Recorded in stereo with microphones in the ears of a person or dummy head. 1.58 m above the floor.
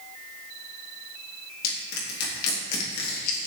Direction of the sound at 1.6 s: 55° left (ahead or behind).